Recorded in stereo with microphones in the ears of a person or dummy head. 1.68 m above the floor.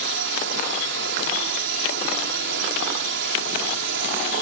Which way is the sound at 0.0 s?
60° right (ahead or behind).